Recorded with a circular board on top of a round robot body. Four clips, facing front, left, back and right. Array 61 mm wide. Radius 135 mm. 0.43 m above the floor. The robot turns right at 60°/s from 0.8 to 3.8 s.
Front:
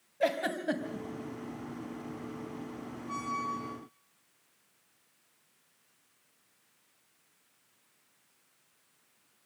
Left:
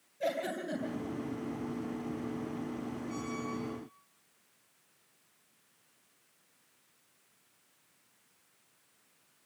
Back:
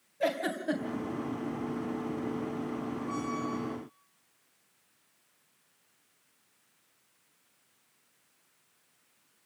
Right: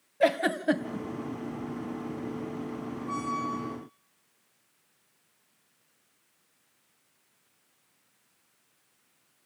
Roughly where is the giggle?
Right.